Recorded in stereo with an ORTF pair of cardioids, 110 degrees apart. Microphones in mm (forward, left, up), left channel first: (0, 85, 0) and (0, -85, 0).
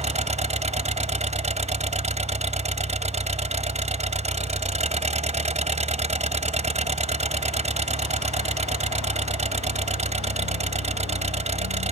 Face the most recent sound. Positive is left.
turn(degrees=-40)